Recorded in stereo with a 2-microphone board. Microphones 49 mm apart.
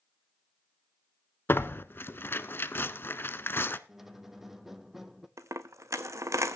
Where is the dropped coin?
80° right, 0.8 m.